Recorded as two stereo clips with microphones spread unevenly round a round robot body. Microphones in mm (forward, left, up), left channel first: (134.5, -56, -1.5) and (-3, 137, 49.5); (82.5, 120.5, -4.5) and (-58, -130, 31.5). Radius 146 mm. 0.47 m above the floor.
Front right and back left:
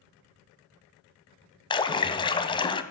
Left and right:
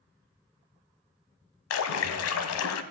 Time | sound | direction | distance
1.7 | a splash | 20° left | 0.9 m